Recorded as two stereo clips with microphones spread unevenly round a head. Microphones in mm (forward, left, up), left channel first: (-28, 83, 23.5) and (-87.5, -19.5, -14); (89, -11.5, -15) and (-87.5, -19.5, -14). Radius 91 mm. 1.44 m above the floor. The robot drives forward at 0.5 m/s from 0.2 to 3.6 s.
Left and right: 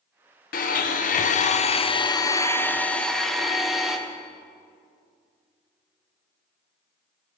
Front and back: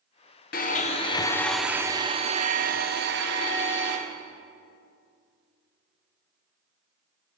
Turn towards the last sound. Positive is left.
turn(degrees=150)